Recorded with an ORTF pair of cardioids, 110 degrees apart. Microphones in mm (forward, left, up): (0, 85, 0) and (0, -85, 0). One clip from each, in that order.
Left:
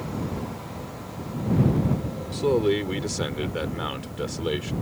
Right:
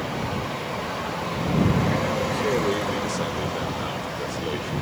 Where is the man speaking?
20° left.